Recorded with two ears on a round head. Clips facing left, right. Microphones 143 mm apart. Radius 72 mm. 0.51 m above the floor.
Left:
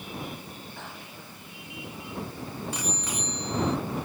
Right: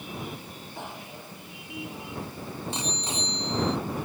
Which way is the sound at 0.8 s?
15° right (ahead or behind).